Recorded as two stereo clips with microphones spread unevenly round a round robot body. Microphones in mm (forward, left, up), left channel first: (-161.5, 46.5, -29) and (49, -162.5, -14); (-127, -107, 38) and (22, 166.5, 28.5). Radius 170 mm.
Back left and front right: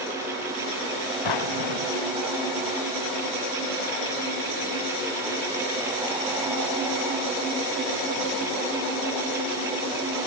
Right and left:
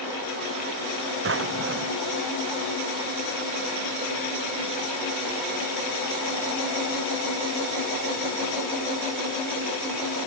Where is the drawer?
110° left.